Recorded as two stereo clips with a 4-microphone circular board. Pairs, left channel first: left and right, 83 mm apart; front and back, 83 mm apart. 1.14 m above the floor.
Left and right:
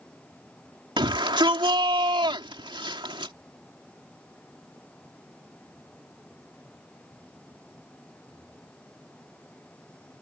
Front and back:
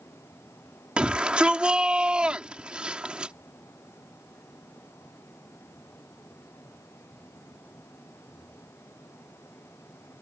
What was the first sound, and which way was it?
A shout, 105° right.